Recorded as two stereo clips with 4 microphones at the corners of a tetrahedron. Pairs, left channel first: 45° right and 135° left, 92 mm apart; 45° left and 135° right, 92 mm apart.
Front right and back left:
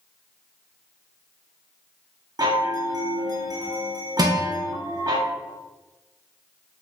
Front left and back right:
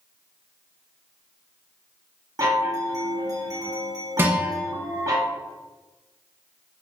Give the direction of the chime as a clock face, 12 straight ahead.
6 o'clock.